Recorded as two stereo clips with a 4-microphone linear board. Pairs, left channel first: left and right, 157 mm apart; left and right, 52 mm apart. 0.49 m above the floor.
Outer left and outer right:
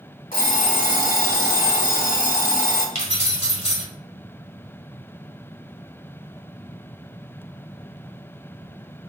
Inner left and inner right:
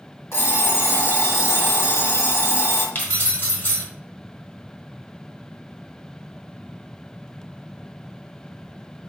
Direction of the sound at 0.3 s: 65° left (ahead or behind).